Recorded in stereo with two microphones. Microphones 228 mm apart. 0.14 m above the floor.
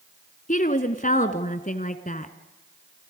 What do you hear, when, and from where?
0.5 s a woman speaking: 35° left (ahead or behind), 1.4 m